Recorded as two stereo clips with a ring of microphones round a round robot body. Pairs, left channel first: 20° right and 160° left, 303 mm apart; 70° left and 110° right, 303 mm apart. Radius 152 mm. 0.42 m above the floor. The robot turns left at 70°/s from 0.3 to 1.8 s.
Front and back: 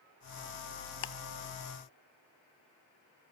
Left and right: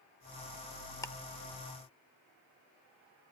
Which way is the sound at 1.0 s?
10° right.